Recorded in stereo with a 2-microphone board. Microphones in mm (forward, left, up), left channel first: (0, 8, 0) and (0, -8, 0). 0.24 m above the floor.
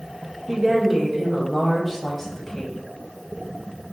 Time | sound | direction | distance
0.5 | a woman speaking | 35° right (ahead or behind) | 1.1 m